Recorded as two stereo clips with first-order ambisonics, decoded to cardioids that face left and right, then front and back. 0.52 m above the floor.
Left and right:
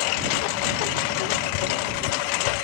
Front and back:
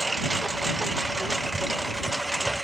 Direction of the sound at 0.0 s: 100° left.